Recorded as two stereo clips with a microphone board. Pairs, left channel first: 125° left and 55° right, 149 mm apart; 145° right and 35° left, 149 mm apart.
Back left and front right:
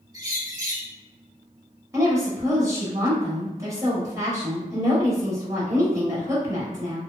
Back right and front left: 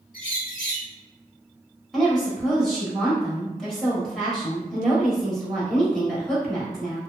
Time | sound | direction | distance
0.1 | a bird | 120° right | 0.9 m
1.9 | a woman speaking | 65° right | 1.1 m